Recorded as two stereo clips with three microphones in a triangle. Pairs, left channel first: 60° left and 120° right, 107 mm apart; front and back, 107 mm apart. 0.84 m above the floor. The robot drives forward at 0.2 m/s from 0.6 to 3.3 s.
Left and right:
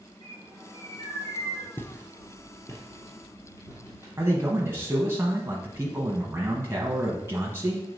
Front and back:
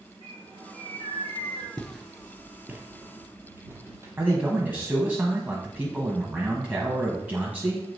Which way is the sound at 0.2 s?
25° left.